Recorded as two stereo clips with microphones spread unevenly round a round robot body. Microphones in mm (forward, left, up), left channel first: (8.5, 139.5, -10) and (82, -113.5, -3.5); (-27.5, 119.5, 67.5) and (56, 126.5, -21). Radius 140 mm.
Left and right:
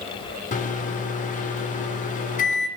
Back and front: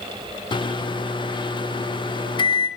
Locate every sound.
0.5 s a microwave: 85° left, 0.8 m